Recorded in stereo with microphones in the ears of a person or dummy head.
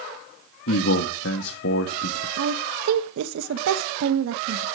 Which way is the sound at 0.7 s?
70° left (ahead or behind).